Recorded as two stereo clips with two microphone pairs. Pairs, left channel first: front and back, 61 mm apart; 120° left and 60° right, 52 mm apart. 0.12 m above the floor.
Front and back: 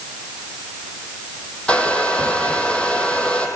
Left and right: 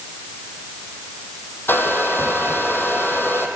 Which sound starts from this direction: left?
A hair dryer, at 1.7 s.